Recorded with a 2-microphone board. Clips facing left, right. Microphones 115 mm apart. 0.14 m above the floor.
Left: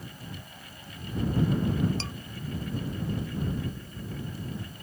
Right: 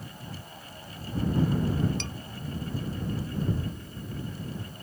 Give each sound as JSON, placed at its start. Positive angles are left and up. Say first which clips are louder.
{"t": 2.0, "sound": "dishes clattering", "louder": "even", "side_deg": 35}
{"t": 3.5, "sound": "a thud", "louder": "right 1 dB", "side_deg": -80}